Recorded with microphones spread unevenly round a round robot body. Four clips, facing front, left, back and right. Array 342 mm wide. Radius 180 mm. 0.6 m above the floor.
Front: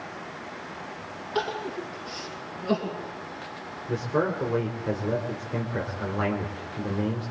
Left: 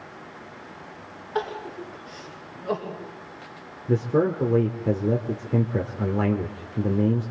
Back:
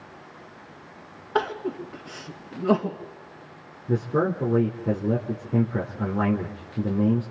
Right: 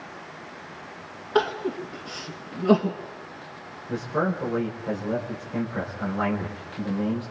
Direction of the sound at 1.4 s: 140° right.